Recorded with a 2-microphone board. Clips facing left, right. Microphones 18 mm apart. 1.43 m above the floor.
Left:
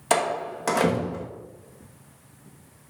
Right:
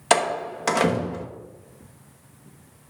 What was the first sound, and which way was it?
A door slam, 25° right (ahead or behind).